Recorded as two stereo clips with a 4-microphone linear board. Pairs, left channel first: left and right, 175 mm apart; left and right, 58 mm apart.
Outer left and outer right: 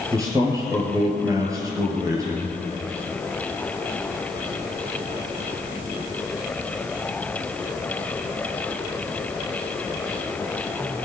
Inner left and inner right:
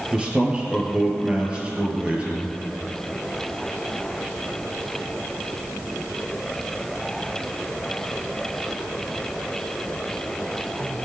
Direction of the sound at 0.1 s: 20° right (ahead or behind).